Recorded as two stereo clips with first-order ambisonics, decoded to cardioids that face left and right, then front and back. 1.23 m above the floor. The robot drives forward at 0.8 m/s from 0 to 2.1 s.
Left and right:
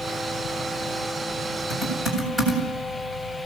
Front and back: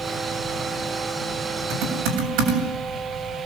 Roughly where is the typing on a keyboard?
Behind.